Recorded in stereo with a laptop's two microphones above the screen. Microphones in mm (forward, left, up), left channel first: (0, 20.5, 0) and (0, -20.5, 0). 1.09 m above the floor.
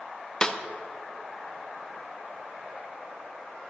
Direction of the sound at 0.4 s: 25° left (ahead or behind).